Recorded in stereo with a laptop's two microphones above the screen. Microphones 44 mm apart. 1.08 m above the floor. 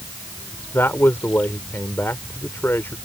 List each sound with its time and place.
0.7 s a man speaking: 65° left (ahead or behind)